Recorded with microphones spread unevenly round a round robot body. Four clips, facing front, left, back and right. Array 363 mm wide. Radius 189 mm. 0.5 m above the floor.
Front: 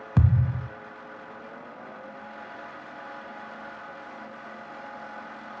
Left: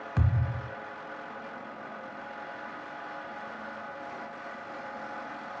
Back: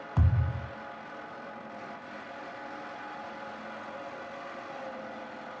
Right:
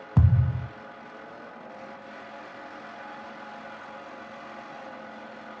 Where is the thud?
40° right, 0.7 m.